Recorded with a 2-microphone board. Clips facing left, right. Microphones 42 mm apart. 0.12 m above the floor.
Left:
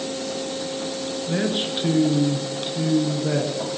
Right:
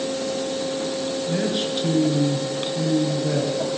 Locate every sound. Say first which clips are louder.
1.3 s a man speaking: left 2 dB; 15° left (ahead or behind), 1.2 m